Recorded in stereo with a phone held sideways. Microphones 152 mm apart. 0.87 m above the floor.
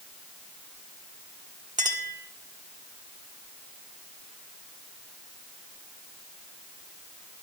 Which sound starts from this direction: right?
A clink, at 1.8 s.